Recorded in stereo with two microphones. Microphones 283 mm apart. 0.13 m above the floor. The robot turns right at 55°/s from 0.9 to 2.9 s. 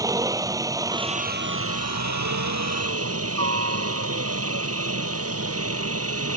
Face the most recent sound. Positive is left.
turn(degrees=-60)